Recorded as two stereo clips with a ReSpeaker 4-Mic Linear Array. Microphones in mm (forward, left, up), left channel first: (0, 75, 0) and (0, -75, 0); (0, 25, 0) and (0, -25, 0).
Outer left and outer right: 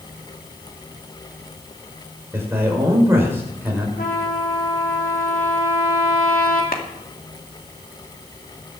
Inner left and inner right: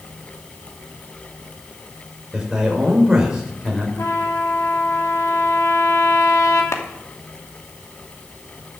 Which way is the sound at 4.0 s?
85° left.